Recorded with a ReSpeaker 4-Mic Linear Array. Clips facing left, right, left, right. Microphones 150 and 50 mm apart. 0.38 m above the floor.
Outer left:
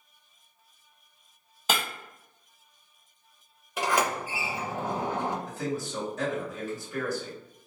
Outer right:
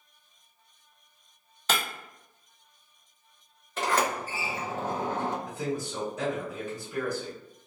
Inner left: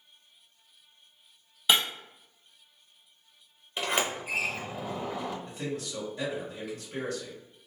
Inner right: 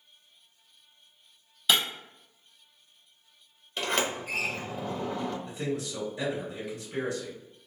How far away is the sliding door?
About 0.7 m.